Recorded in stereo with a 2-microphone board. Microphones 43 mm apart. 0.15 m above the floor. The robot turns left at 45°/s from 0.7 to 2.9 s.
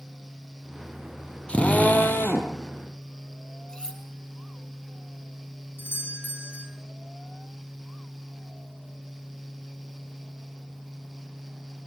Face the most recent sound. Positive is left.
turn(degrees=55)  # may be behind; listen again after turning